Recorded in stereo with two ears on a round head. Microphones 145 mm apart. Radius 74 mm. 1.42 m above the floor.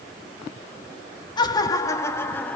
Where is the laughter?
30° left (ahead or behind), 3.5 m; by 2.6 s 10° left (ahead or behind), 3 m.